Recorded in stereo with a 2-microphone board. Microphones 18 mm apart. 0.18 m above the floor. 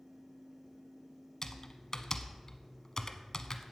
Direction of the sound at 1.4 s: 35° left (ahead or behind).